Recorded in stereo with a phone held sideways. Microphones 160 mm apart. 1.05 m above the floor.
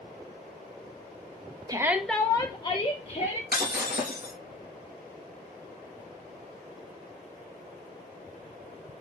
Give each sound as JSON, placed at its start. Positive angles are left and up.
{"t": 1.7, "sound": "a shout", "side_deg": -25, "distance_m": 0.5}
{"t": 3.5, "sound": "breaking glass", "side_deg": 75, "distance_m": 3.0}